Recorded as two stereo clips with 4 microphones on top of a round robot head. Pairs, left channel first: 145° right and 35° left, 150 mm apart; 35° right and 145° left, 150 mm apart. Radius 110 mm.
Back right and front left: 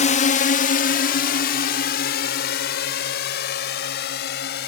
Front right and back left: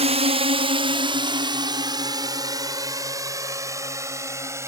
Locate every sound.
0.0 s a drone: 175° right; by 4.7 s 140° right